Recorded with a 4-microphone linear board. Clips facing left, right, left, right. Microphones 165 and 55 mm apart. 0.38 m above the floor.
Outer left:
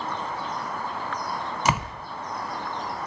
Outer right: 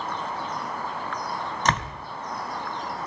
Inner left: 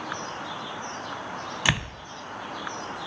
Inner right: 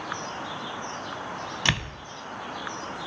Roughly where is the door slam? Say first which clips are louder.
Outer left 1 dB, inner left 1 dB; centre.